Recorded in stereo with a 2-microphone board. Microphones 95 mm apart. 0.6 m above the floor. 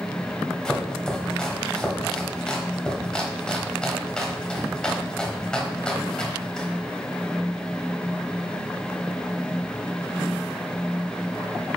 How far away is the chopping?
About 1.2 m.